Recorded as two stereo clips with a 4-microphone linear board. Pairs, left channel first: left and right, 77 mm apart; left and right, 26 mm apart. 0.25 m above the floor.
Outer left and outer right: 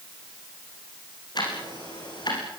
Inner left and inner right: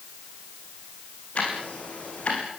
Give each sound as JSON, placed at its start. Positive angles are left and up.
{"t": 1.4, "sound": "ticking", "side_deg": 60, "distance_m": 8.5}